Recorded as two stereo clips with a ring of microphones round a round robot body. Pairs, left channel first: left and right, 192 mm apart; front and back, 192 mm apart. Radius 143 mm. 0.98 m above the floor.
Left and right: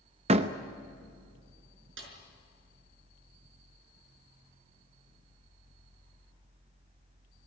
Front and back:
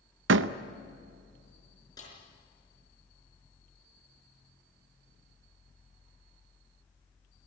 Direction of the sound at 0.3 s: 155° right.